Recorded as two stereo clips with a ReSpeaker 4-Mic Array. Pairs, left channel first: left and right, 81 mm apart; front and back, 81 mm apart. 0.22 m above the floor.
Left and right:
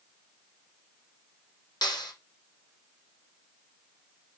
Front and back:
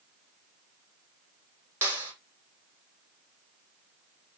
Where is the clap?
125° left, 6.5 m.